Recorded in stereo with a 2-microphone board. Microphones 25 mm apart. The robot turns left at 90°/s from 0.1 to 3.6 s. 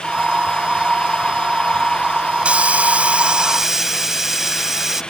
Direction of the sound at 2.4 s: 60° right.